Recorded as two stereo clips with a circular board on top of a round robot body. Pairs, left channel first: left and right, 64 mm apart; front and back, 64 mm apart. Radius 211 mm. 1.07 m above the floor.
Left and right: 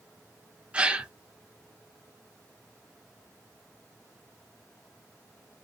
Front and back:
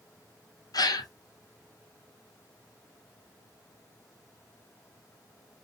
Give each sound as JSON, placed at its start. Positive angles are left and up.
{"t": 0.7, "sound": "a gasp", "azimuth_deg": -15, "distance_m": 1.1}